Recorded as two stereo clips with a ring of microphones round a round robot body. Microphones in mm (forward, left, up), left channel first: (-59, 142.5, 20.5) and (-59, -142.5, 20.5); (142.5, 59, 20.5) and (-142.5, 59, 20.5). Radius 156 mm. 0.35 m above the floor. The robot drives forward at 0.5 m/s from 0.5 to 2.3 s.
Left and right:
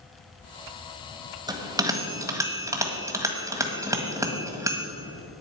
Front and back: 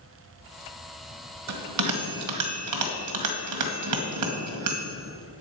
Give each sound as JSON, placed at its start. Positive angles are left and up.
{"t": 1.5, "sound": "a bell", "azimuth_deg": -165, "distance_m": 1.4}